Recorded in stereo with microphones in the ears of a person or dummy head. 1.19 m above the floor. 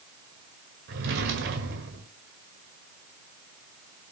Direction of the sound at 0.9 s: 60° right (ahead or behind).